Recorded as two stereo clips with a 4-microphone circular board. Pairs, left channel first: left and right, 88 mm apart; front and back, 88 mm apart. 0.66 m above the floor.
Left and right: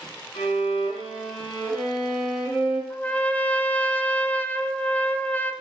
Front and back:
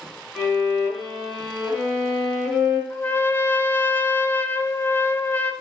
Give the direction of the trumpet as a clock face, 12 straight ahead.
11 o'clock.